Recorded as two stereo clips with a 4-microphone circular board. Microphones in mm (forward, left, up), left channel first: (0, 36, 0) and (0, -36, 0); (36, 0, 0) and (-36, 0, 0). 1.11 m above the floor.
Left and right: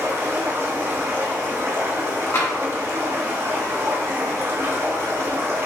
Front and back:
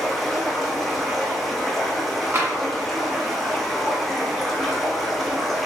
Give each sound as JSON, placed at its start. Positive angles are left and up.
{"t": 0.0, "sound": "running water", "azimuth_deg": -90, "distance_m": 0.8}
{"t": 2.3, "sound": "tapping", "azimuth_deg": 135, "distance_m": 1.8}